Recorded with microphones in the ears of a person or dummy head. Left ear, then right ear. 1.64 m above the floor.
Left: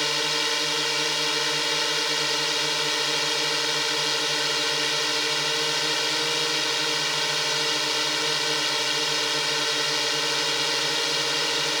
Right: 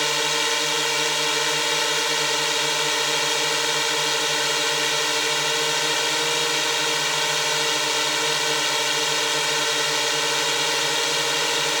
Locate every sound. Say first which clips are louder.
0.0 s a drone: right 2 dB; 25° right (ahead or behind)